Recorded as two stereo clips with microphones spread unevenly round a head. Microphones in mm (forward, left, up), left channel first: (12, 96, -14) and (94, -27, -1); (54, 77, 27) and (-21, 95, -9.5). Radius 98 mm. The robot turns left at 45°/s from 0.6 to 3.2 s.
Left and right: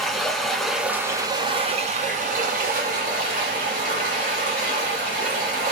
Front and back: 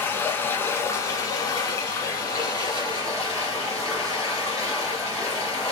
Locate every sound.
0.0 s running water: 30° left, 2.0 m; by 5.7 s 85° right, 2.0 m